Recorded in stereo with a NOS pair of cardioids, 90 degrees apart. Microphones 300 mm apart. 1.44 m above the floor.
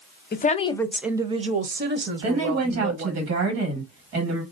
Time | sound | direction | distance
0.3 | a woman speaking | 35° left | 0.7 m
2.2 | a woman speaking | 55° right | 1.8 m